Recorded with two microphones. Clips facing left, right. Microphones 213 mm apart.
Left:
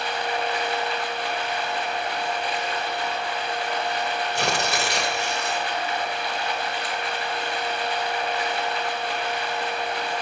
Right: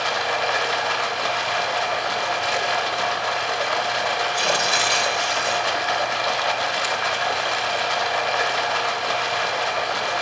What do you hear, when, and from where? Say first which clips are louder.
0.0 s running water: right 2 dB; 85° right, 1.2 m
4.3 s tearing paper: right 1 dB; 65° left (ahead or behind), 2 m